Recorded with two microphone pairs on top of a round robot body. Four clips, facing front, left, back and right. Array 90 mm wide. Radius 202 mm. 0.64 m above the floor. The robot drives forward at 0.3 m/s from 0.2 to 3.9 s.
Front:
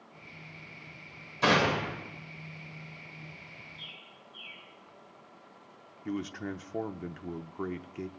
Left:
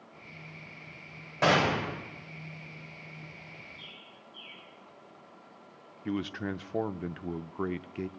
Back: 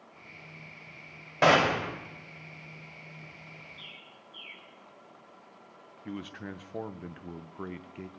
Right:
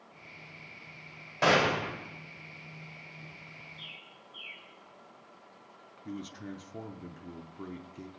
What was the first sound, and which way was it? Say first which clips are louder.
A gunshot: even, back 3 dB; straight behind.